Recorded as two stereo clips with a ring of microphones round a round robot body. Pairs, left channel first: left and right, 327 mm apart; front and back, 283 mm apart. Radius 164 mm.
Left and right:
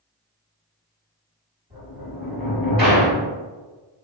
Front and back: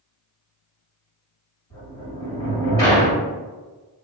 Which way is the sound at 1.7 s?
30° right.